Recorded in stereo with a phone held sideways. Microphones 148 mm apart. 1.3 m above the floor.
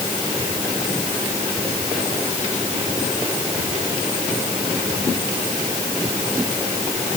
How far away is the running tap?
No running tap in this recording.